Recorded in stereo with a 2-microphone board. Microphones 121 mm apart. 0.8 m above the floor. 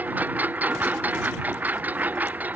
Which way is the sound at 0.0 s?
15° right (ahead or behind).